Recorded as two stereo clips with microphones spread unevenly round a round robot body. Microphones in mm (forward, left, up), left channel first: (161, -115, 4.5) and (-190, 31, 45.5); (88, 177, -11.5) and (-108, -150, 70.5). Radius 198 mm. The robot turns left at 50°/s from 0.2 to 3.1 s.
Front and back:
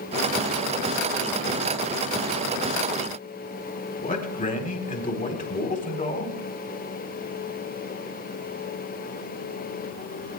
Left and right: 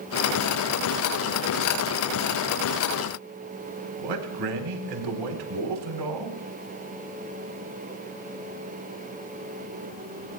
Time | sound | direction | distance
4.0 | a man speaking | 90° right | 4 m